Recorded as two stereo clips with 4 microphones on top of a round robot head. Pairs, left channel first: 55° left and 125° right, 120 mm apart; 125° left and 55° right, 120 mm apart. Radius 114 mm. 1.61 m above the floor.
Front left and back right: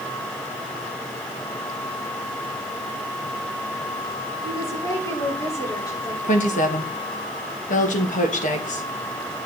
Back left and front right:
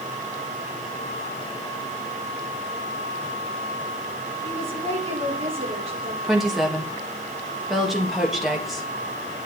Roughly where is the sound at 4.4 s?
Ahead.